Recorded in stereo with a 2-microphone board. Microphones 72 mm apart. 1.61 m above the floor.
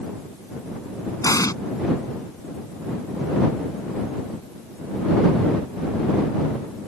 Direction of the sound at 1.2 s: 50° left (ahead or behind).